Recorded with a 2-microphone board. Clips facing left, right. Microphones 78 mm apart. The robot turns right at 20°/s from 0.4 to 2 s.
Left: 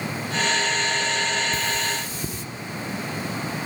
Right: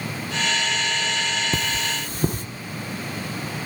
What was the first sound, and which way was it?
Cutlery clinking, 60° right (ahead or behind).